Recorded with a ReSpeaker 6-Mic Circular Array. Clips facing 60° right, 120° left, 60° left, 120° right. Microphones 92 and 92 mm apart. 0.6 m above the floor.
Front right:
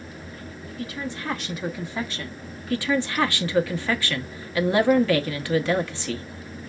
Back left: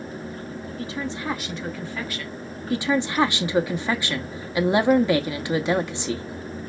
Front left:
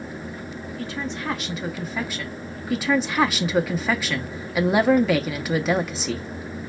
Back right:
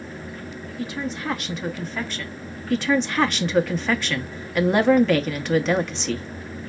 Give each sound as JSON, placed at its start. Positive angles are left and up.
{"t": 0.8, "sound": "a woman speaking", "azimuth_deg": 160, "distance_m": 0.9}
{"t": 2.7, "sound": "a woman speaking", "azimuth_deg": 135, "distance_m": 0.8}